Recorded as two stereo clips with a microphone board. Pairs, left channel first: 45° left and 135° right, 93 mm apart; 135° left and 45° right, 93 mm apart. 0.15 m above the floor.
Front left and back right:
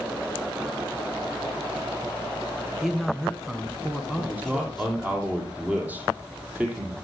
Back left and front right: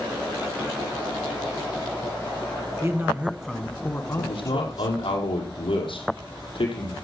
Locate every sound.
2.8 s a man speaking: 45° right, 1.1 m; by 5.2 s 135° left, 1.8 m
4.2 s a man speaking: 150° left, 5 m